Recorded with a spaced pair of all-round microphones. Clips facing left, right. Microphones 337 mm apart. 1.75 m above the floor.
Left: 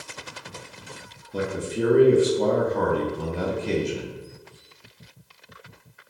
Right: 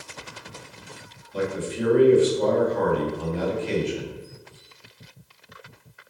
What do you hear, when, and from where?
1.3 s a man speaking: 55° left (ahead or behind), 0.7 m